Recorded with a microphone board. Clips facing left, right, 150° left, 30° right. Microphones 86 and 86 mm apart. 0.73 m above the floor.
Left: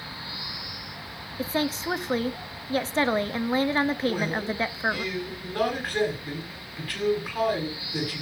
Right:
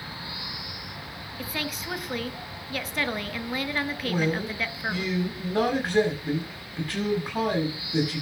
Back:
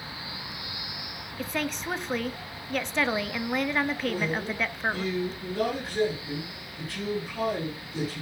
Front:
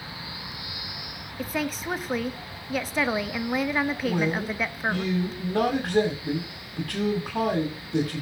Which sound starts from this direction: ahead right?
A man speaking, at 4.0 s.